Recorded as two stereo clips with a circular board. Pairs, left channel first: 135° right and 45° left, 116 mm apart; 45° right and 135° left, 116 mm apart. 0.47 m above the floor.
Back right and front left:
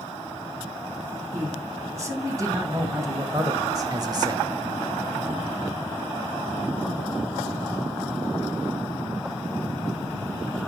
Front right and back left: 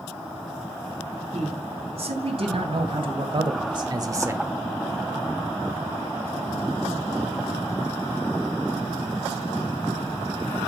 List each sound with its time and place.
1.3 s a man speaking: 110° left, 4 m; by 4.5 s 70° left, 1.1 m